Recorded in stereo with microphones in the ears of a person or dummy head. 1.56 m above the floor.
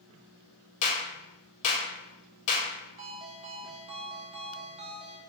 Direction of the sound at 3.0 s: 35° right (ahead or behind).